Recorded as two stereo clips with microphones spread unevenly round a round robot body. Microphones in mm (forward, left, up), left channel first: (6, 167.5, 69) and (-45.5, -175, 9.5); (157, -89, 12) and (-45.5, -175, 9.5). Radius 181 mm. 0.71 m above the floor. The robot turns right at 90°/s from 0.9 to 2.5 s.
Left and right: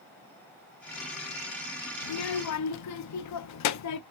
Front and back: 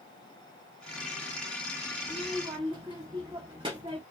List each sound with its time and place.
2.0 s a child speaking: 85° left, 0.5 m; by 4.0 s 130° left, 0.5 m